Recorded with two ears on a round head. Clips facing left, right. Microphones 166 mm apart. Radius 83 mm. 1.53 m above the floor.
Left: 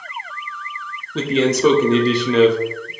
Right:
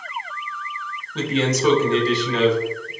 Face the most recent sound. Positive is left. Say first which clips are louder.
# left 4 dB
turn(degrees=65)  # may be behind; listen again after turning